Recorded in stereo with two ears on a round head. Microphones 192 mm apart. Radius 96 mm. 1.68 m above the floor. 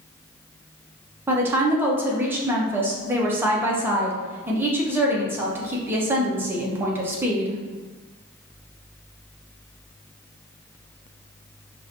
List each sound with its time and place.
1.3 s a woman speaking: 10° right (ahead or behind), 0.8 m